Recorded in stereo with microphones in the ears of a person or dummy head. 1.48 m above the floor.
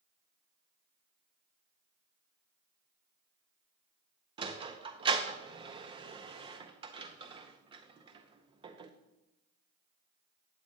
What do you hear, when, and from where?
4.4 s a sliding door: 25° right (ahead or behind), 0.5 m